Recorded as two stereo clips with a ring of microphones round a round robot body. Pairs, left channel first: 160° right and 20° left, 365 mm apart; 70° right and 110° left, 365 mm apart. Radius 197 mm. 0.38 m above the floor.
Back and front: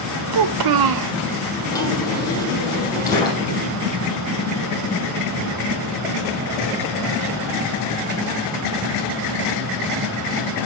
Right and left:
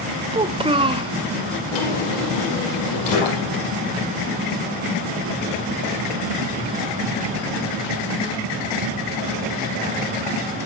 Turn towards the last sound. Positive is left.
turn(degrees=-75)